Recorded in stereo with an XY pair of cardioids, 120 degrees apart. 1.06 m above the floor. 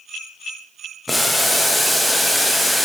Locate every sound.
1.1 s boiling: 5° left, 0.7 m